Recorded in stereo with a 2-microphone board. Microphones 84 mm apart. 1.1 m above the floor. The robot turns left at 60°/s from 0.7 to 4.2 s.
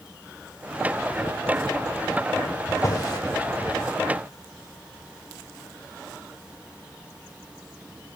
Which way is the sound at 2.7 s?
40° left (ahead or behind).